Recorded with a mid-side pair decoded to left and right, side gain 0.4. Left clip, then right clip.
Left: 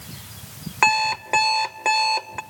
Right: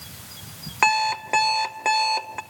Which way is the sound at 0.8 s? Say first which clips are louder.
Left 1 dB; 5° left.